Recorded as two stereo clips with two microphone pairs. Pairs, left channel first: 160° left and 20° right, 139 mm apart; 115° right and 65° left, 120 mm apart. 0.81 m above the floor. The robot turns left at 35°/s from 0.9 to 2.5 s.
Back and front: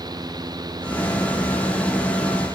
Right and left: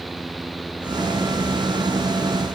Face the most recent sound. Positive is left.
No sound to turn to.